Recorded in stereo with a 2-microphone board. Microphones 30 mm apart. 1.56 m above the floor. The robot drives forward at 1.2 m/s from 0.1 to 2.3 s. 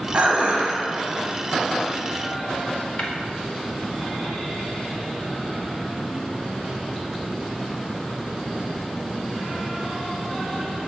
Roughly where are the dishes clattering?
Right.